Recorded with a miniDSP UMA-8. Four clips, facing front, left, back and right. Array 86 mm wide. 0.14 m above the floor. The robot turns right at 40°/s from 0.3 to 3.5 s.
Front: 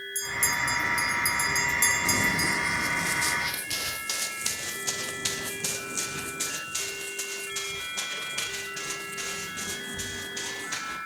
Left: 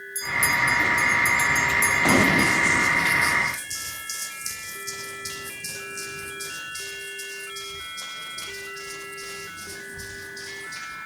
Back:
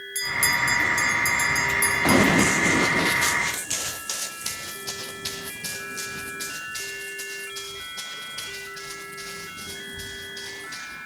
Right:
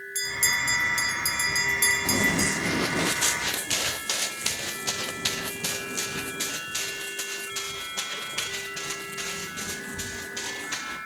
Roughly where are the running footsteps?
Behind left.